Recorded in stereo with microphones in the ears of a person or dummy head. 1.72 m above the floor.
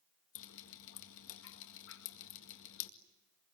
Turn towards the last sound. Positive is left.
turn(degrees=65)  # may be behind; listen again after turning